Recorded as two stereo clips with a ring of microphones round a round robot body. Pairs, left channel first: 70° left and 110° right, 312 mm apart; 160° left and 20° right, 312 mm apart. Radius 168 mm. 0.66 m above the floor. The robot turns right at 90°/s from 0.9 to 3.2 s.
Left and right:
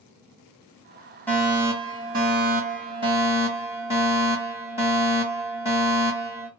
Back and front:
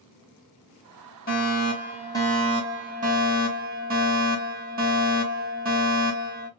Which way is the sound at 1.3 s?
145° left.